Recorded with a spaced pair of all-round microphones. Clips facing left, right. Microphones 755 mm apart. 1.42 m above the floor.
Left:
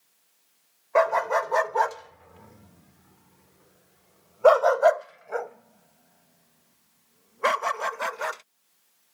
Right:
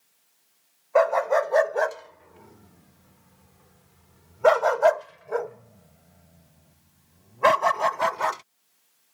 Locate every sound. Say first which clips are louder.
0.9 s a dog barking: right 3 dB; 50° left (ahead or behind); by 8.4 s 80° right